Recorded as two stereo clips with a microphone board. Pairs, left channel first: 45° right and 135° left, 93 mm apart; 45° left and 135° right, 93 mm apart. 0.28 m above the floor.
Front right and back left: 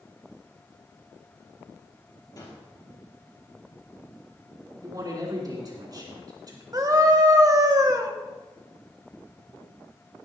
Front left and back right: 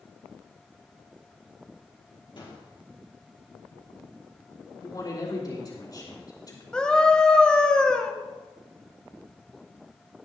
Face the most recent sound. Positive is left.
turn(degrees=120)